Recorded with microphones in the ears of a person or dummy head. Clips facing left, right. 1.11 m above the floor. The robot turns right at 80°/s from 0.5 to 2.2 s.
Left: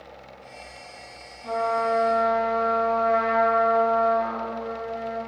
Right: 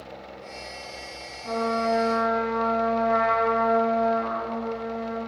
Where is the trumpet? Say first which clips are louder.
Left 1 dB; 80° right, 1.9 m; by 5.2 s 15° right, 1.9 m.